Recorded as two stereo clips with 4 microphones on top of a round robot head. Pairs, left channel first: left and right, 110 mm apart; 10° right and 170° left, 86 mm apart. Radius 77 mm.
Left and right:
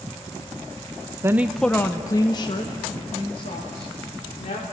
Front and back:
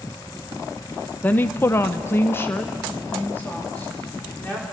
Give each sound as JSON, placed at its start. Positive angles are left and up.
{"t": 1.2, "sound": "a woman speaking", "azimuth_deg": -60, "distance_m": 0.7}